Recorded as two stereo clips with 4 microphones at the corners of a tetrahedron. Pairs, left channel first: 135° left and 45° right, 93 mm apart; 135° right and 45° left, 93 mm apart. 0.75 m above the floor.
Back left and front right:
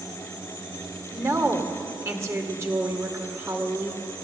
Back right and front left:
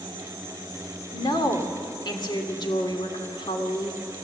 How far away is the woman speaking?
About 2.5 m.